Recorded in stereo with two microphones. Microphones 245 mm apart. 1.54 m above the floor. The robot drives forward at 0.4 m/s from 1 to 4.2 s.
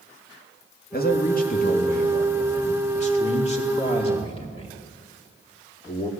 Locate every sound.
0.9 s a man speaking: 40° left (ahead or behind), 2 m; by 6.1 s 25° left (ahead or behind), 3.5 m